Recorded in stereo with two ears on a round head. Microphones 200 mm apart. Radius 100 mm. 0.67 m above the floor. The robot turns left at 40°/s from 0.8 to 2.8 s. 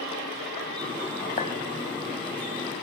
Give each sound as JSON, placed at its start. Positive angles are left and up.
{"t": 1.4, "sound": "a clink", "side_deg": 35, "distance_m": 2.5}